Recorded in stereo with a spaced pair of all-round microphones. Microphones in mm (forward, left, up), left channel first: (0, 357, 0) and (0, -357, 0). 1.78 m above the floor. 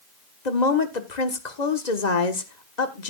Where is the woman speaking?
70° left (ahead or behind), 1.5 m.